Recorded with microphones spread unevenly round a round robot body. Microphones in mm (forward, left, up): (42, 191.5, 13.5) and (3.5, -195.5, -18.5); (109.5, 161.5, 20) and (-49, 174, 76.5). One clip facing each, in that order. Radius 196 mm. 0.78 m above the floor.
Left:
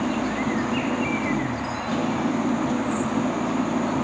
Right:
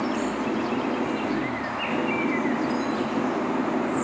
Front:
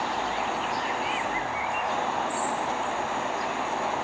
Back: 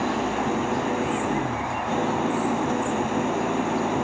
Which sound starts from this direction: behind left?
An engine running, at 0.0 s.